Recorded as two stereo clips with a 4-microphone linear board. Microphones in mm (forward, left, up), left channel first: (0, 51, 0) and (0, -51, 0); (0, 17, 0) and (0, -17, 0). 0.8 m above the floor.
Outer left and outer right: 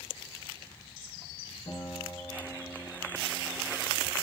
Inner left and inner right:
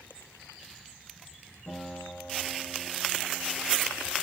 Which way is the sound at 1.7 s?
65° left (ahead or behind).